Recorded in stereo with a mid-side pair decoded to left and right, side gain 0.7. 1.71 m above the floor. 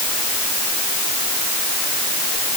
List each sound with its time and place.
Only background noise.